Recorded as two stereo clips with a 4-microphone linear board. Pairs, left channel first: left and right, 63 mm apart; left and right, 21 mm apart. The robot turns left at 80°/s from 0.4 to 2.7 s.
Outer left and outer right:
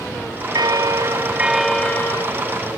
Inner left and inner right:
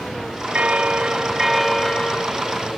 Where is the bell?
90° right, 0.8 m; by 2.2 s 135° left, 0.8 m.